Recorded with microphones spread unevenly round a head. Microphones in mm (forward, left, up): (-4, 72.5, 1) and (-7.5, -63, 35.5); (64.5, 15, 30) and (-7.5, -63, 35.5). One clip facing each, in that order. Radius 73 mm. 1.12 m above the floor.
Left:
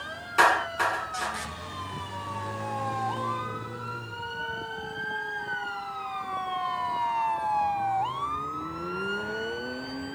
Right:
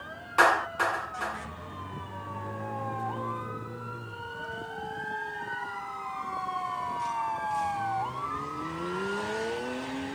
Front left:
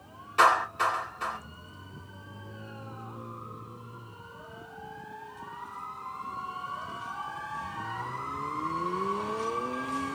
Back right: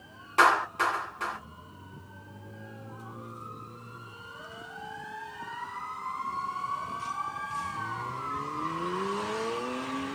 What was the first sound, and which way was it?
A clap, 175° left.